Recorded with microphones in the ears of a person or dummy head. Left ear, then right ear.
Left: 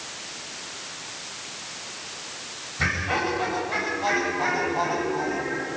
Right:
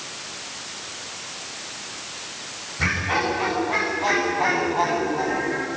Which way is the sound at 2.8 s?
20° left (ahead or behind).